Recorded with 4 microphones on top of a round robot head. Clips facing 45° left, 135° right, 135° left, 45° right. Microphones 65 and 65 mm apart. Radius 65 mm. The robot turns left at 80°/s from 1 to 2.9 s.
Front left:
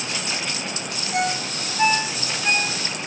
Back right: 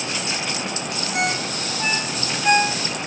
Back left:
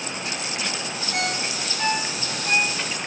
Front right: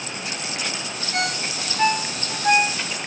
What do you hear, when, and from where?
1.1 s a ringtone: 60° left, 6.5 m; by 2.8 s 75° right, 6.5 m